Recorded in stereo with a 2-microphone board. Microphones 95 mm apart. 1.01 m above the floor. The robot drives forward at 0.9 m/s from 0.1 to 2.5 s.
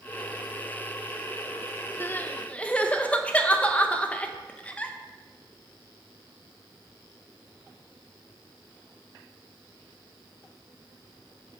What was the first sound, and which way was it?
Crying, 25° left (ahead or behind).